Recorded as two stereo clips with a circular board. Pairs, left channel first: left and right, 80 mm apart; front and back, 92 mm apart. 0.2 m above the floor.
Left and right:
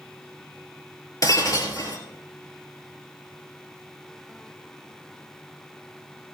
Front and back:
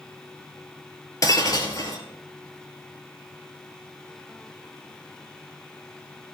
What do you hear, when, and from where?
1.2 s breaking glass: 50° left, 2.5 m